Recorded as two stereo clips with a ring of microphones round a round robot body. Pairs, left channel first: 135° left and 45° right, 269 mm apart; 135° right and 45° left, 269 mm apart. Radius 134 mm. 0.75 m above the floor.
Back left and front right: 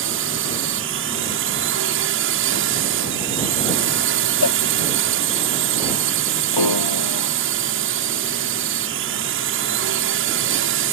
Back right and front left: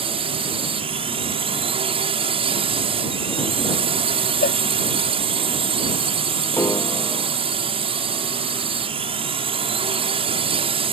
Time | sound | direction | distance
0.0 | a drone | 20° right | ?
4.4 | a cowbell | 165° left | ?
6.5 | a piano | 140° left | ?